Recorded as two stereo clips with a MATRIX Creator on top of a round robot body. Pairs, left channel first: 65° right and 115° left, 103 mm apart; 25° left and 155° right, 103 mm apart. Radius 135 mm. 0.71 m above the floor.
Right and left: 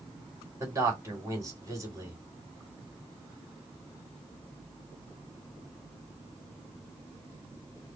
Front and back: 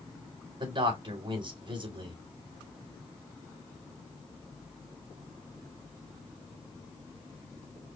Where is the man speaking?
170° left, 3 m.